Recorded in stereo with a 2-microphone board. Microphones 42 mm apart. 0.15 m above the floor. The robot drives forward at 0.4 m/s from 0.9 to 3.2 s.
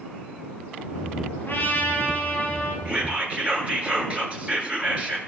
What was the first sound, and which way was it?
A trumpet, 50° left (ahead or behind).